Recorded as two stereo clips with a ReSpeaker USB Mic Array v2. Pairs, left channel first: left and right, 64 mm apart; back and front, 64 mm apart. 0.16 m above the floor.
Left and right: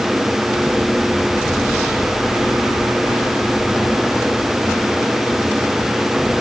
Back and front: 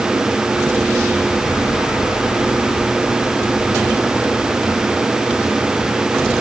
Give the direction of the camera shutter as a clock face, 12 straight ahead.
No camera shutter in this recording.